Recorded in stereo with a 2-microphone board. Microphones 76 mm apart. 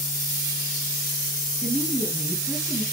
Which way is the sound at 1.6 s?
Centre (ahead or behind).